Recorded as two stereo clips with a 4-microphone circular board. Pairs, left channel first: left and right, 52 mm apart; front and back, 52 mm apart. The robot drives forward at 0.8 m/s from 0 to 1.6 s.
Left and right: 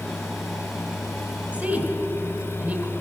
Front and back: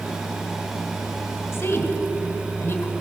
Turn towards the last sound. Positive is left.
turn(degrees=-30)